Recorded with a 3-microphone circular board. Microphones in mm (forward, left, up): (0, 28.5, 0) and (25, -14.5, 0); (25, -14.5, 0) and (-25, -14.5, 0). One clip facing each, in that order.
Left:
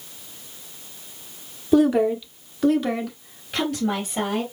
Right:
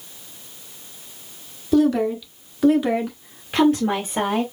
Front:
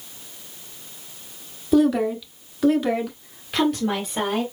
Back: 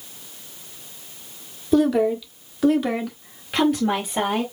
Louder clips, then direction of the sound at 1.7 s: Left 1 dB, even; 85° left.